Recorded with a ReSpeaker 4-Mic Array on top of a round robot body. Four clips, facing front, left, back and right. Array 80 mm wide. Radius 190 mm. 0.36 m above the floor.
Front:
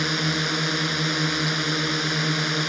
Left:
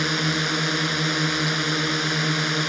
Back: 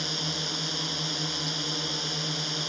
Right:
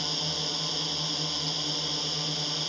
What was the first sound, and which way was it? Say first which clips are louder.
A drone: left 12 dB, front 10 dB; 50° left.